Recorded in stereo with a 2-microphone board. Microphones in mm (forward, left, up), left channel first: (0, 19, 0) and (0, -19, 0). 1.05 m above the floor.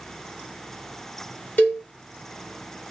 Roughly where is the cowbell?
Left.